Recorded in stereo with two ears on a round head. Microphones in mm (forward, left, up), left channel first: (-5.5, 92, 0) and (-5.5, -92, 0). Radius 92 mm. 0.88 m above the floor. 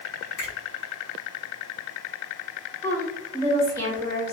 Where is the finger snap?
50° left (ahead or behind), 1.4 m.